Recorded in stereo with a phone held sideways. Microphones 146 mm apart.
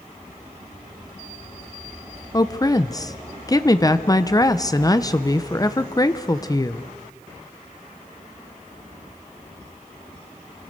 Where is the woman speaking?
25° left (ahead or behind), 0.9 m.